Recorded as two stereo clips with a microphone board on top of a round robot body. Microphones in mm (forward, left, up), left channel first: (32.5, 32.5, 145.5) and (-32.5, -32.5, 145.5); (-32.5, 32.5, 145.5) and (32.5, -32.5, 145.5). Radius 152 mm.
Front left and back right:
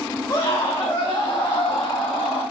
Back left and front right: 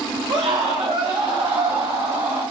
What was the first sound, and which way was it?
A scream, 10° right.